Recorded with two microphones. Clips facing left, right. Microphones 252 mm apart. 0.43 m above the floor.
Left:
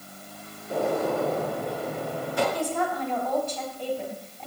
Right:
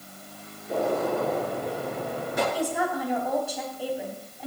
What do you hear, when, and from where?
0.7 s a gunshot: 20° right (ahead or behind), 7 m
2.5 s a woman speaking: 10° right (ahead or behind), 3 m